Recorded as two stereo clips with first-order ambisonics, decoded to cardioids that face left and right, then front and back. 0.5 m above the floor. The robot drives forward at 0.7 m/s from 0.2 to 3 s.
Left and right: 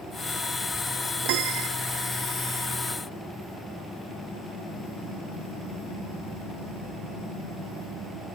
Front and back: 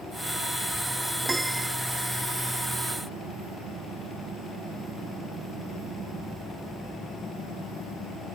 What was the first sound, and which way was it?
A piano, 100° right.